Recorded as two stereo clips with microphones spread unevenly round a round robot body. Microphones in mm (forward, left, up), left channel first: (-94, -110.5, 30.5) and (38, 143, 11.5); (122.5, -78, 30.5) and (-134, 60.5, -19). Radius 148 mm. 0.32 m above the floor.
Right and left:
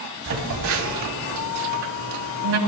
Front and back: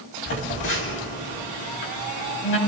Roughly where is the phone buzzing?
Ahead.